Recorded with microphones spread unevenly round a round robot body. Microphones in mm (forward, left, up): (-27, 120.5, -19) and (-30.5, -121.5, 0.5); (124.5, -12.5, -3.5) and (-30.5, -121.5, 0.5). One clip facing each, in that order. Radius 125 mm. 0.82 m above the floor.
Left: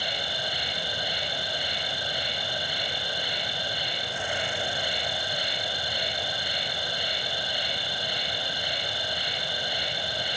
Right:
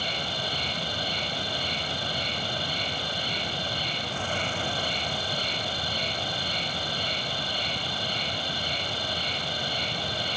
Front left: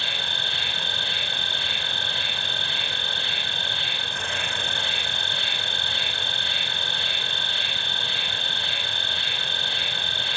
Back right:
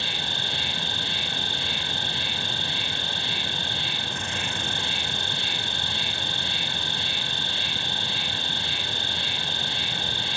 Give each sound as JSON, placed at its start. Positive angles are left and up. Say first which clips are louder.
{"t": 0.0, "sound": "an insect", "louder": "right 1 dB, back right 1 dB", "azimuth_deg": 10, "distance_m": 0.9}